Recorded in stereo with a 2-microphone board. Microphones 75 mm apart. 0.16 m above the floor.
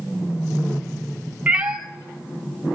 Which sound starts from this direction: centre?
A cat meowing, at 1.5 s.